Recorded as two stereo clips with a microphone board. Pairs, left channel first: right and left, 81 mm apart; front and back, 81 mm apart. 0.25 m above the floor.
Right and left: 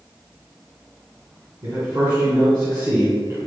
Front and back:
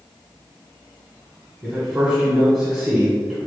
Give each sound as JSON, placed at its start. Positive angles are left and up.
{"t": 1.6, "sound": "a man speaking", "azimuth_deg": 100, "distance_m": 2.0}